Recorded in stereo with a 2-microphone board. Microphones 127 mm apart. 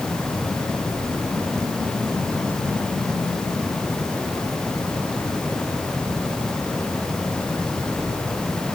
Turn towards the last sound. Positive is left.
No sound to turn to.